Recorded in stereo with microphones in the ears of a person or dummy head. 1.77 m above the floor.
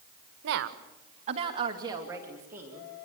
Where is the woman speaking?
65° right (ahead or behind), 1.4 m; by 2.9 s 10° right (ahead or behind), 4 m.